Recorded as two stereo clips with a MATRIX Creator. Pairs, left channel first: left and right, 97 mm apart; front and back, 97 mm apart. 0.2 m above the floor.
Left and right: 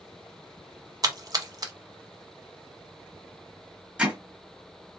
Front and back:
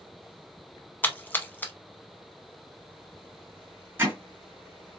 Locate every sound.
1.0 s a splash: 65° right, 0.6 m
4.0 s hammering: 150° right, 1.4 m